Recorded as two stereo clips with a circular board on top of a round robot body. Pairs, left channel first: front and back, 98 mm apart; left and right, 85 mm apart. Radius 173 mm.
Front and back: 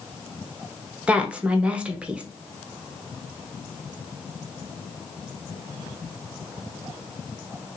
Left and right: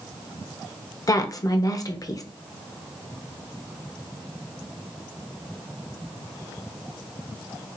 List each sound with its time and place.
1.1 s a woman speaking: 105° left, 1.1 m